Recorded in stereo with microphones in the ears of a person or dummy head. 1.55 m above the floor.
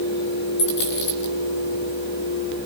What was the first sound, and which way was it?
A dropped coin, 65° left (ahead or behind).